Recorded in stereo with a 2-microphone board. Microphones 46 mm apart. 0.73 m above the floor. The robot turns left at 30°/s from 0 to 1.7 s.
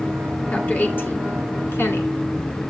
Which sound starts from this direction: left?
A woman speaking, at 0.5 s.